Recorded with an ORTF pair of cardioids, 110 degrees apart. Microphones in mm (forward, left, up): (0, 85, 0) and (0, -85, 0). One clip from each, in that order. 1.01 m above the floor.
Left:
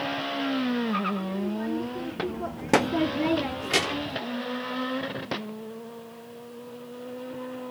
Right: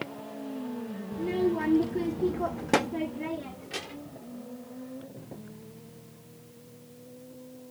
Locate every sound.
1.1 s a child speaking: 65° right; by 4.2 s 75° left